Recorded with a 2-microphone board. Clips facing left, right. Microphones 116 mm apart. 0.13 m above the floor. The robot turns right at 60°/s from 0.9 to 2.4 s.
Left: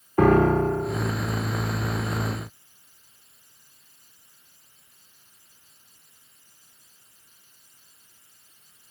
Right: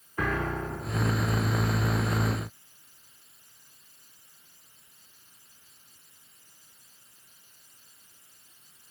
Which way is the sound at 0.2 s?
45° left (ahead or behind).